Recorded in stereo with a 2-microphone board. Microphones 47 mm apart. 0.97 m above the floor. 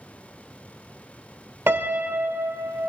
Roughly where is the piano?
Right.